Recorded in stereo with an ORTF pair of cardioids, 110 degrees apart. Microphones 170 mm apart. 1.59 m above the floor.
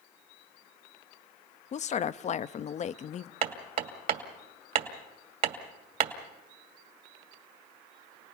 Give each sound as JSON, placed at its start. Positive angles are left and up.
{"t": 1.7, "sound": "a woman speaking", "azimuth_deg": 45, "distance_m": 0.6}
{"t": 3.4, "sound": "hammering", "azimuth_deg": -55, "distance_m": 2.5}